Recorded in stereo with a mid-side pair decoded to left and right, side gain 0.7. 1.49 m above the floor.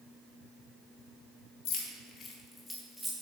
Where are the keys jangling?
65° left, 1.4 m; by 3.2 s 5° right, 1.7 m.